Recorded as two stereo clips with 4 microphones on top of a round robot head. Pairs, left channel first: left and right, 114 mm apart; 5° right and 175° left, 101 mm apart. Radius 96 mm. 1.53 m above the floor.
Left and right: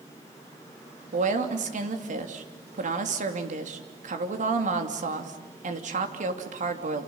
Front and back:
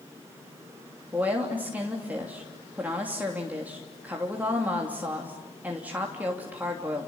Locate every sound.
1.1 s a woman speaking: 105° right, 3 m